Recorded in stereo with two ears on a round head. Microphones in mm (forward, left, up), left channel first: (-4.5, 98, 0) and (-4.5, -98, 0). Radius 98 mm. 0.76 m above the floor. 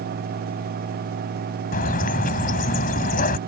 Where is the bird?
40° left (ahead or behind).